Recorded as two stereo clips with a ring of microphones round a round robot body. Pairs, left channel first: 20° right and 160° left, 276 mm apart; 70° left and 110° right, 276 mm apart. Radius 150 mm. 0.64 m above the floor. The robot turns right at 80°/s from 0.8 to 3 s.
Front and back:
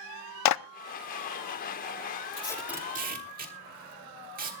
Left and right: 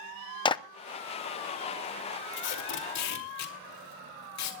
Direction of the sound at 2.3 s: 45° left.